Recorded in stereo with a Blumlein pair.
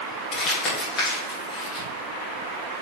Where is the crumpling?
25° left, 3 m.